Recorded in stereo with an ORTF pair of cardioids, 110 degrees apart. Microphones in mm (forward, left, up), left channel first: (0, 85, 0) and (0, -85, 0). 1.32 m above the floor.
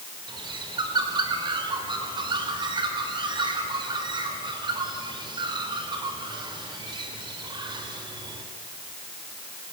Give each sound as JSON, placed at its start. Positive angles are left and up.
{"t": 0.3, "sound": "a bird", "azimuth_deg": -30, "distance_m": 4.0}